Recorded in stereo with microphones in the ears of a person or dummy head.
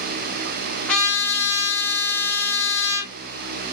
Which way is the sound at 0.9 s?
Centre (ahead or behind).